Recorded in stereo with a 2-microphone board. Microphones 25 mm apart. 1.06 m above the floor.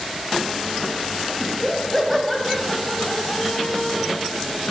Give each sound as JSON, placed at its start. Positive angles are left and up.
{"t": 1.4, "sound": "laughter", "side_deg": 0, "distance_m": 1.5}